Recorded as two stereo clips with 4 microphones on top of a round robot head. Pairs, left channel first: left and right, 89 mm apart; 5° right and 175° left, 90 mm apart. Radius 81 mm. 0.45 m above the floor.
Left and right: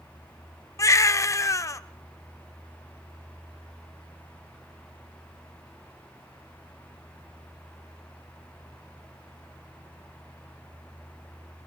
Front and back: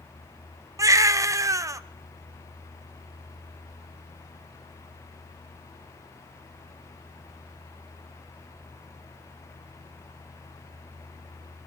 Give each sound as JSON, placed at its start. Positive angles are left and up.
{"t": 0.8, "sound": "a baby crying", "azimuth_deg": 135, "distance_m": 0.7}